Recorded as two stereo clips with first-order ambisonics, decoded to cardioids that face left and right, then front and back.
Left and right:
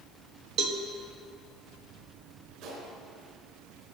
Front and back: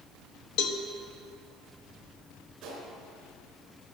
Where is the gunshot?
120° right, 4 m.